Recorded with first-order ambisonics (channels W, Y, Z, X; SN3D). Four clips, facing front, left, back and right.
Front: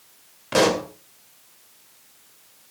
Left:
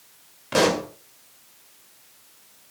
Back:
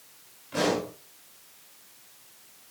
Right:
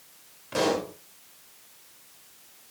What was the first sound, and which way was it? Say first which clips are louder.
A pop: left 5 dB, front 7 dB; 30° left.